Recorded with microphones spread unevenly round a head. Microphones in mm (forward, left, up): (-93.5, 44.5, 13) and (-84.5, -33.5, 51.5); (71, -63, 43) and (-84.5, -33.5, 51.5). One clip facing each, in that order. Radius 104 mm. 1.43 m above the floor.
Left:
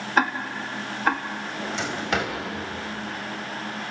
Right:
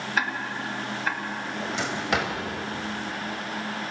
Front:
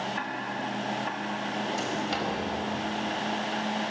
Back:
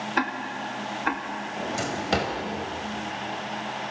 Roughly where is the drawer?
Behind.